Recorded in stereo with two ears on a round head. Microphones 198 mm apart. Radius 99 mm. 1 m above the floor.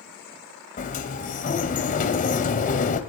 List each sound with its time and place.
0.8 s a sliding door: 40° left (ahead or behind), 2 m